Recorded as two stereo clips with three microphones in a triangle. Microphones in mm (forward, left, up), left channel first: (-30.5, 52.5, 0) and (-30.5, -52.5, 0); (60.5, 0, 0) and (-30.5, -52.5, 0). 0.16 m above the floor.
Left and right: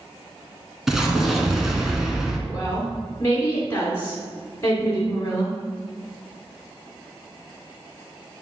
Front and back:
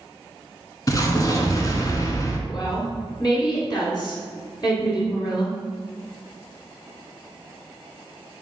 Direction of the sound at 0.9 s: 5° right.